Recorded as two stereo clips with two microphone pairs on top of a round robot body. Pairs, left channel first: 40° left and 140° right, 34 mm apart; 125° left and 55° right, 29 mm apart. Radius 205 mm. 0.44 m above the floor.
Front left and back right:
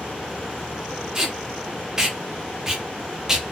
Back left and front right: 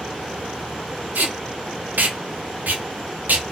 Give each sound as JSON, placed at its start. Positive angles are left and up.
{"t": 1.1, "sound": "tape being pulled", "azimuth_deg": -65, "distance_m": 0.6}